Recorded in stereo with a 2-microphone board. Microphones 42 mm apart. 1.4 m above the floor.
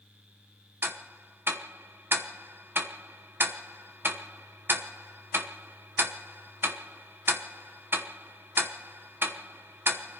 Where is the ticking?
60° right (ahead or behind), 1.0 m.